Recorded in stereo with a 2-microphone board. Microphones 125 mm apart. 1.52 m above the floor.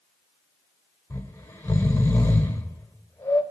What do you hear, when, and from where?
1.1 s snoring: 20° left (ahead or behind), 1.5 m